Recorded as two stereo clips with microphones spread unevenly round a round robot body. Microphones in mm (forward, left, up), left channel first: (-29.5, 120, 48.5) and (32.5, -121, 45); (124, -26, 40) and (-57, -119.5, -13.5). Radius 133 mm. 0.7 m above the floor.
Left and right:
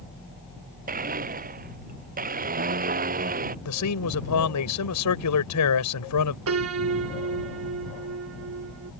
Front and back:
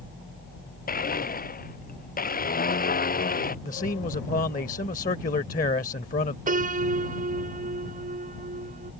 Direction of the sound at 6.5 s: 105° right.